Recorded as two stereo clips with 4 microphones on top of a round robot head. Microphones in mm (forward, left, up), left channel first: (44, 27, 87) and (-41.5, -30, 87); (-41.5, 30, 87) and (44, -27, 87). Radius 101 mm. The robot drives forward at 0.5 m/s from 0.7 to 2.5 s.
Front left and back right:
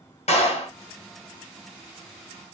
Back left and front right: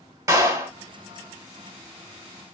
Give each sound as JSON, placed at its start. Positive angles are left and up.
{"t": 0.3, "sound": "a clap", "azimuth_deg": 30, "distance_m": 1.6}